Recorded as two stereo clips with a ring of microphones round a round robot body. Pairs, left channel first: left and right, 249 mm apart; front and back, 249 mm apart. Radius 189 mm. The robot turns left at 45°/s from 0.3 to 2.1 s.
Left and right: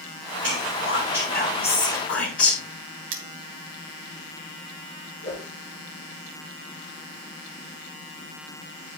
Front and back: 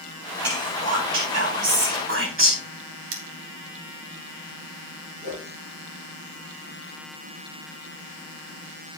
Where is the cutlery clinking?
135° right, 0.7 m.